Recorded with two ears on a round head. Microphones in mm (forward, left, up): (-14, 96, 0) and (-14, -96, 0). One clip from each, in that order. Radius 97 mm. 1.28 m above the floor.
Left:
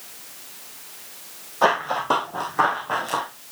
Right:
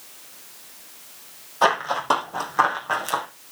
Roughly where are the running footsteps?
Right.